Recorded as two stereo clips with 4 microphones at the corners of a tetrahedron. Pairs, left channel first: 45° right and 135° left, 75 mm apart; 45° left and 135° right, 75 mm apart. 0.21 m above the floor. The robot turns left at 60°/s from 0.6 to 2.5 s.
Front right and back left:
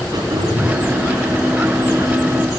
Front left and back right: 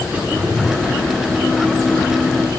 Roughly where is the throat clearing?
Behind left.